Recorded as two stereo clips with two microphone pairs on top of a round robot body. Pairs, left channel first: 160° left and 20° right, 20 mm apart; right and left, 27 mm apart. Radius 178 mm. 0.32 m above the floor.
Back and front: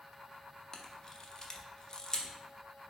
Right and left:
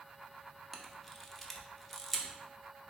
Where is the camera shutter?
165° left, 0.8 m.